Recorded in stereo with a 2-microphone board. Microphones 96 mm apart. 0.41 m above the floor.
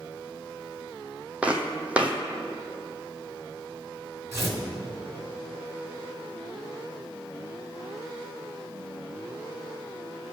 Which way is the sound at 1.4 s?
15° right (ahead or behind).